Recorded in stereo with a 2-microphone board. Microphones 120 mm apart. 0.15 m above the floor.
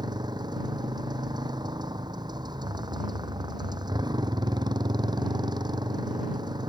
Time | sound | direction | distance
0.0 | a motorcycle | 35° right (ahead or behind) | ?